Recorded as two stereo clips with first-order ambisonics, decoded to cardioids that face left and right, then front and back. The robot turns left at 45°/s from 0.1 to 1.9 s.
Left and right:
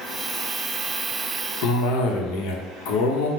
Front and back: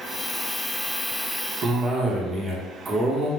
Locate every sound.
1.6 s a cough: 115° left, 0.8 m; by 3.3 s 105° left, 0.8 m